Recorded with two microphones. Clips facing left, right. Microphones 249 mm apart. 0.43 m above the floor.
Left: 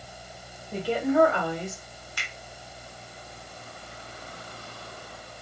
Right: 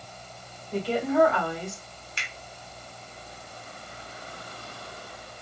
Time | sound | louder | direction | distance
0.7 | a woman speaking | left 1 dB | 15° left (ahead or behind) | 1.7 m
2.2 | a finger snap | right 1 dB | 25° right (ahead or behind) | 0.9 m